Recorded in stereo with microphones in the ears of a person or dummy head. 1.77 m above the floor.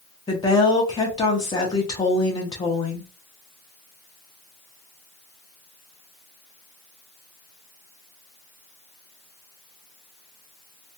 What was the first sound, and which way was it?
A woman speaking, 20° left (ahead or behind).